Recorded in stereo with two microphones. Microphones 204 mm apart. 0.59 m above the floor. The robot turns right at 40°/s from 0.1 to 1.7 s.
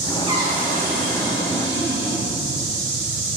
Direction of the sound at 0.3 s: 155° right.